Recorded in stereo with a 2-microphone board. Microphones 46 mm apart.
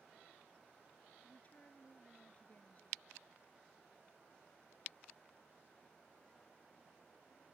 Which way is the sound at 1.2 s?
35° left (ahead or behind).